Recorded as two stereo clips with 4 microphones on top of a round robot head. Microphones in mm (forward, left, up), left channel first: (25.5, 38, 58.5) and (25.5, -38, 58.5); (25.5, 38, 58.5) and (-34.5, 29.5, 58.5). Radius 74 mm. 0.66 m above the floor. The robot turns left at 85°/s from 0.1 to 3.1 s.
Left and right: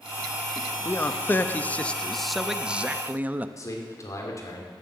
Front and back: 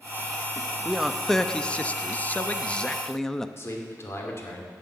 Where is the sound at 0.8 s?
125° left, 0.7 m; by 3.5 s 70° right, 0.7 m.